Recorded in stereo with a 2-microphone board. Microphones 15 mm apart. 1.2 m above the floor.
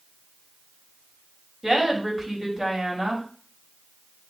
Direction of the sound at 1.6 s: 25° right (ahead or behind).